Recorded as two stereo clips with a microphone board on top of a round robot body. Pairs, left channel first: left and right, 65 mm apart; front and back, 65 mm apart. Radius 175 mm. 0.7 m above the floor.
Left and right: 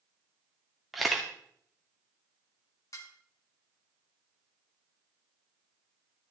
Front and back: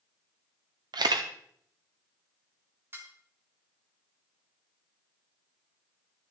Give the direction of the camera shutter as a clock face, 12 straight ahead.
6 o'clock.